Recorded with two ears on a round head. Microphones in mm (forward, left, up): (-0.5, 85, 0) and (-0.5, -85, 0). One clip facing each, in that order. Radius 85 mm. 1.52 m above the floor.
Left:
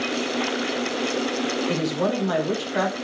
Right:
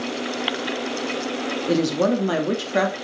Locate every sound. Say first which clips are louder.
1.7 s a woman speaking: right 8 dB; 60° right (ahead or behind), 2.5 m